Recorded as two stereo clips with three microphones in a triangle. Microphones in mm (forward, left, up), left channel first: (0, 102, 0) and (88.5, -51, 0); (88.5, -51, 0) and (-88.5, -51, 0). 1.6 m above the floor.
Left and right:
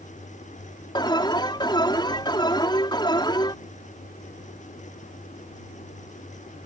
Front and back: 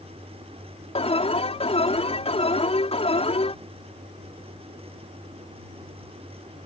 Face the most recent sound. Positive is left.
turn(degrees=55)